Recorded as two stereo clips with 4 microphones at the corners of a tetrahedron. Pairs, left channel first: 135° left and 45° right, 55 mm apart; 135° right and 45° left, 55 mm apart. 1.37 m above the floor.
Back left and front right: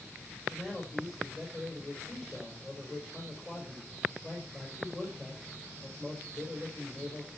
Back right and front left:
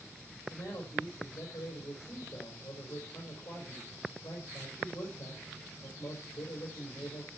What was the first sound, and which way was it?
A man speaking, 150° right.